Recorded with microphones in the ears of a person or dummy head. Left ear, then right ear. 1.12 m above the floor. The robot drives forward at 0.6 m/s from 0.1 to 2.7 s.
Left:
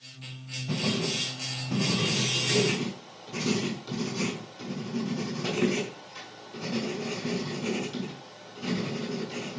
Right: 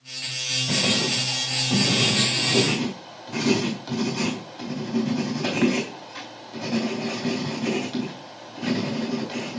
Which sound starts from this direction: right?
Writing, at 0.7 s.